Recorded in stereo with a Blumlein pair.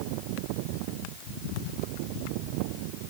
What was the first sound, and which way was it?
Only background noise.